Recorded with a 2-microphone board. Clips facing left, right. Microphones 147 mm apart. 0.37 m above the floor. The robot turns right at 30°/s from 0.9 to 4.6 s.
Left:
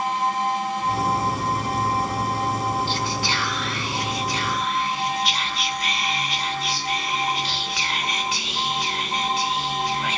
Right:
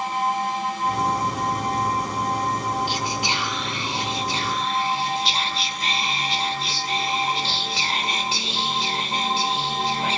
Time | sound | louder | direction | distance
2.9 | whispering | even | 15° right (ahead or behind) | 1.2 m